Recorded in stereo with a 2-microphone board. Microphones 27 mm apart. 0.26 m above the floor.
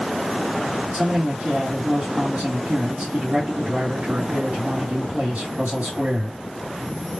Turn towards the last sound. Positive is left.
turn(degrees=-45)  # may be behind; listen again after turning